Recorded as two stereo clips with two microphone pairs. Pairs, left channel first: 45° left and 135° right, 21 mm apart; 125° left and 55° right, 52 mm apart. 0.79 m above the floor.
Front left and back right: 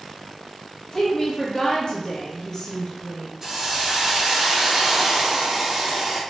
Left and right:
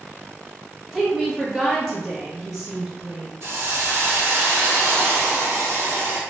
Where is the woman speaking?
25° left, 0.7 m.